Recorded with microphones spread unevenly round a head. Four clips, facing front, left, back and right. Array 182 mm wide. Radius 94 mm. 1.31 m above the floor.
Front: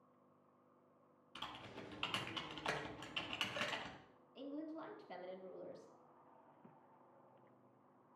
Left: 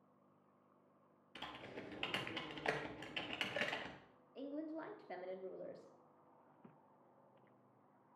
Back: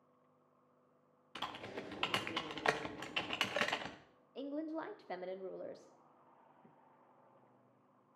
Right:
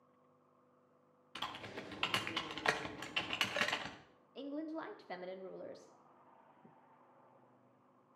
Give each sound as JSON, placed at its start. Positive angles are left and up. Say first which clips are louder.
{"t": 1.4, "sound": "typing on a keyboard", "louder": "right 5 dB, back 7 dB", "azimuth_deg": 180, "distance_m": 0.6}
{"t": 4.3, "sound": "a woman speaking", "louder": "right 3 dB, back 6 dB", "azimuth_deg": -175, "distance_m": 0.7}